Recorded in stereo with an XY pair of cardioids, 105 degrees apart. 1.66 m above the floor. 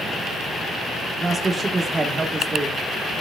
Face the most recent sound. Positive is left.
turn(degrees=-25)